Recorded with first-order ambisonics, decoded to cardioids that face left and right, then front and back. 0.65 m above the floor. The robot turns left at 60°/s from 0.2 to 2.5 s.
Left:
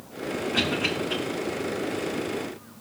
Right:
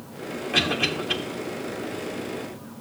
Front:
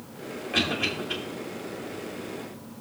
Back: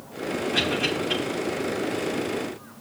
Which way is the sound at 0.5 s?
65° right.